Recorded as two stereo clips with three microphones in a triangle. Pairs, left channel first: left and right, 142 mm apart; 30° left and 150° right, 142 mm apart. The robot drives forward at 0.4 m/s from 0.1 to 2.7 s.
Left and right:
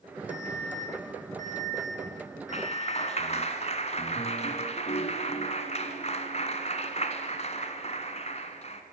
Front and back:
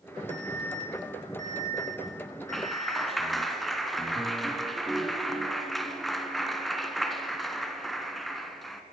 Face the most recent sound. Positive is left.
turn(degrees=120)